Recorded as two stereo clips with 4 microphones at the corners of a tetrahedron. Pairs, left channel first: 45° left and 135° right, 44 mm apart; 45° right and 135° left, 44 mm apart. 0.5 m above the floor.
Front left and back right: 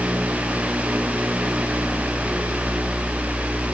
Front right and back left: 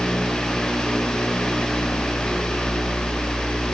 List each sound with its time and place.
Only background noise.